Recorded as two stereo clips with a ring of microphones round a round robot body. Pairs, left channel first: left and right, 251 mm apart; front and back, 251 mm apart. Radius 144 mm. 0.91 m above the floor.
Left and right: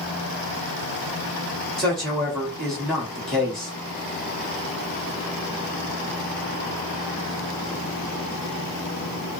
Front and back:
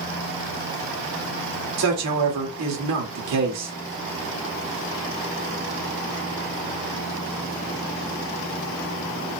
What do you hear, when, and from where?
1.8 s a man speaking: straight behind, 1.8 m